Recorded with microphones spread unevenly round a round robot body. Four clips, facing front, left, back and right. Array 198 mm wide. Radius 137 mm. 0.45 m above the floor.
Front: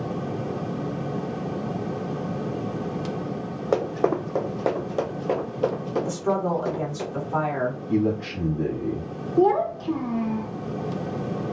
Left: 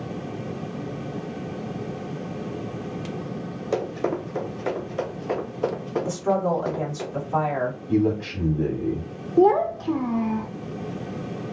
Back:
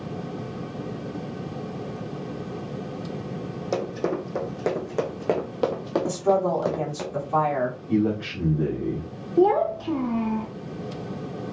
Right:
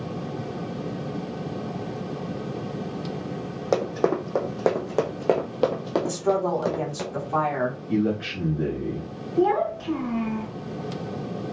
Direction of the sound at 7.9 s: 110° left.